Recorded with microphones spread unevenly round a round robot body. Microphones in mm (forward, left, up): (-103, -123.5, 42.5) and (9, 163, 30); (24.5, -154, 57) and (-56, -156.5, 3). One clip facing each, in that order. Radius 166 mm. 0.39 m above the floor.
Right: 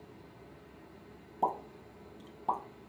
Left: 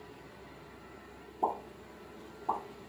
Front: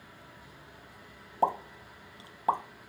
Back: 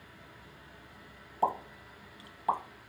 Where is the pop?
55° right, 0.7 m.